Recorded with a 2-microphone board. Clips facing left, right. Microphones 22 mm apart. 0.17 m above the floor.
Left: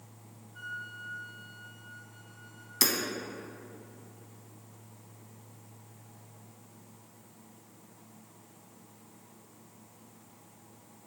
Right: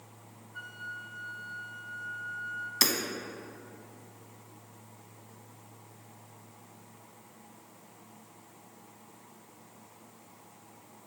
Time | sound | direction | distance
0.5 | a flute | 30° right (ahead or behind) | 1.9 m
2.8 | hammering | 20° right (ahead or behind) | 0.7 m